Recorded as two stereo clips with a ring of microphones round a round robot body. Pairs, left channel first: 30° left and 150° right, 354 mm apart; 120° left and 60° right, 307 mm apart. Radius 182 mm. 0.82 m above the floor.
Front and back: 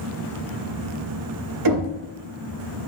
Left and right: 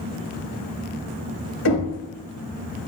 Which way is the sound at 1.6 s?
170° left.